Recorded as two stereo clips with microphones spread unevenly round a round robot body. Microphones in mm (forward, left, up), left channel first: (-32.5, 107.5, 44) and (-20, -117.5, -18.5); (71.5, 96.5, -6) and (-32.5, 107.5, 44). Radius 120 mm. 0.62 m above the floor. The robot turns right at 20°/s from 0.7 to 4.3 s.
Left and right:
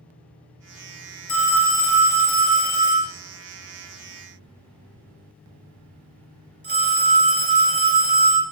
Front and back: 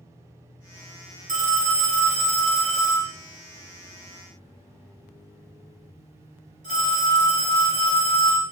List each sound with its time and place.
1.3 s a phone ringing: 170° left, 1.5 m; by 8.4 s 130° right, 1.5 m